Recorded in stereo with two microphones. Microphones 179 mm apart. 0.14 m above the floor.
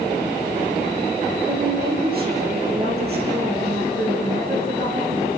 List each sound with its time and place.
1.5 s a woman speaking: 60° right (ahead or behind), 5 m; by 5.3 s 70° right (ahead or behind), 8.5 m